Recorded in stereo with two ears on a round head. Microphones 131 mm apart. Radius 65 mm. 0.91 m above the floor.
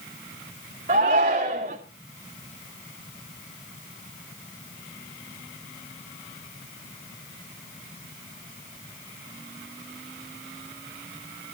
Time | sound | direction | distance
0.9 | a shout | 45° right (ahead or behind) | 2.5 m